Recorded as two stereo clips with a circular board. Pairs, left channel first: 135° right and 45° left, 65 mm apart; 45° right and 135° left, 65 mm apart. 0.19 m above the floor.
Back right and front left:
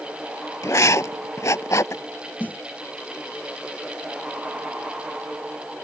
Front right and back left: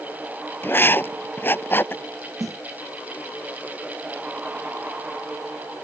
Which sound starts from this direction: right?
Writing, at 0.6 s.